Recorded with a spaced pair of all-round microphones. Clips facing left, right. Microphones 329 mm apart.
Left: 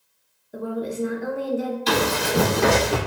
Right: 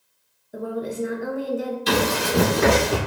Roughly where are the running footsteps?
Centre.